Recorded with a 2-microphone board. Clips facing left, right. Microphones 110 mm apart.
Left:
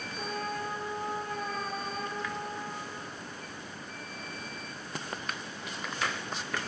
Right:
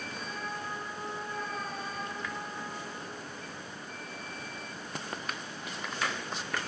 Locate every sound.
0.2 s a trumpet: 65° left (ahead or behind), 3 m